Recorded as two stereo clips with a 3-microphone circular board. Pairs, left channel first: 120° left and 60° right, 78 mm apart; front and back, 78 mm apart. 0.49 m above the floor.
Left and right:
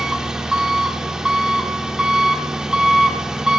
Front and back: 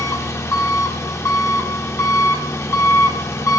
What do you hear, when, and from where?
0.0 s an engine running: 15° left, 0.9 m